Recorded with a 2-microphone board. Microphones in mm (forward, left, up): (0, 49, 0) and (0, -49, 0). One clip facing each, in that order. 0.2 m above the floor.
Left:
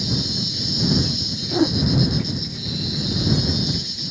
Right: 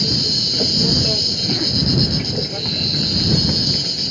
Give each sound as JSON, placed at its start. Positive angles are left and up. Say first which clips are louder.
{"t": 0.0, "sound": "an insect", "louder": "right 2 dB", "side_deg": -70}
{"t": 1.5, "sound": "a whoosh", "louder": "left 6 dB", "side_deg": 30}